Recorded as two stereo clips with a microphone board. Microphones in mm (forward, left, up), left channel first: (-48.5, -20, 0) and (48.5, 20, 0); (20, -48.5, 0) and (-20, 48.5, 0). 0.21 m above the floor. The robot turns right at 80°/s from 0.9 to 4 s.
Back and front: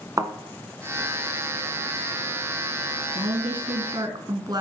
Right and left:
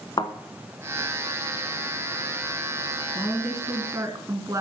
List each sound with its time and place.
0.2 s a thud: 30° right, 0.9 m
3.1 s a woman speaking: 5° right, 1.9 m; by 4.6 s 65° left, 1.9 m